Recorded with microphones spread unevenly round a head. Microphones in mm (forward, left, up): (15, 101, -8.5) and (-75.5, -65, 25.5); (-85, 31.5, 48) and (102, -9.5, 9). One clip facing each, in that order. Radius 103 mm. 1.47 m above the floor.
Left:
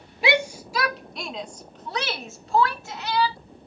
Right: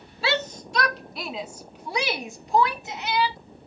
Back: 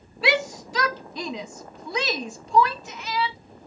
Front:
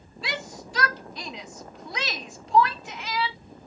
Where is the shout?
135° left; by 3.4 s 170° left.